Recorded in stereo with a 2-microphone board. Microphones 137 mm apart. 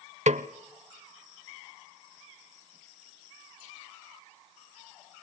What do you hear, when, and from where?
0.3 s a snare drum: 60° right (ahead or behind), 0.8 m